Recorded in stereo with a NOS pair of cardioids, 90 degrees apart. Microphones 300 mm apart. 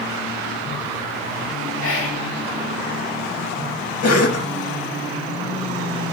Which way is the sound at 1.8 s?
50° left.